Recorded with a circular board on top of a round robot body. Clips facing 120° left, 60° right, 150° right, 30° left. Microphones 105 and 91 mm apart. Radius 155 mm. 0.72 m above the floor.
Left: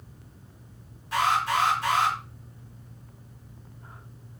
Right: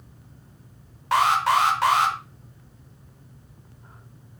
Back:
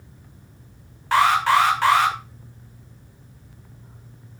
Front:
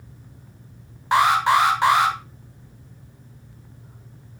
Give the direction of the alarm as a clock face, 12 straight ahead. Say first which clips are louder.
Right 5 dB, even; 1 o'clock.